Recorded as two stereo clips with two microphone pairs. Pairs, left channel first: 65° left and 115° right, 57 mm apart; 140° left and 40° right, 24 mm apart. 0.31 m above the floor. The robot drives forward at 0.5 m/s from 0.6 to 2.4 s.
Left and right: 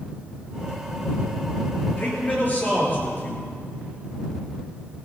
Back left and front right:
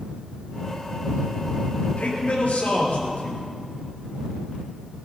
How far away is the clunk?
No clunk in this recording.